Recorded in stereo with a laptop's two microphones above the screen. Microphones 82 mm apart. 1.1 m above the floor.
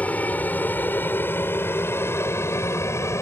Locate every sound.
0.0 s an aircraft: 20° left (ahead or behind); by 3.2 s 35° left (ahead or behind)